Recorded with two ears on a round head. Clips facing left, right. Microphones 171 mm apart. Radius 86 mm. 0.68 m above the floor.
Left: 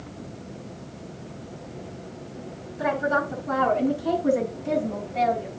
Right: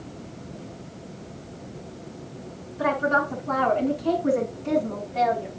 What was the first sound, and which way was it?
A woman speaking, 10° left (ahead or behind).